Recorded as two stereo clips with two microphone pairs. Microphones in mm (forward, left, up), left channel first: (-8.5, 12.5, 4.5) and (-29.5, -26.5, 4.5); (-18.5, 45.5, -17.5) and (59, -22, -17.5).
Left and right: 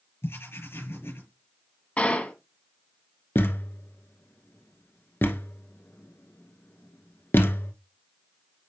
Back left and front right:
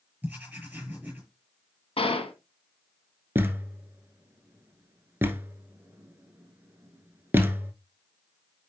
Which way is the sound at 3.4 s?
30° left.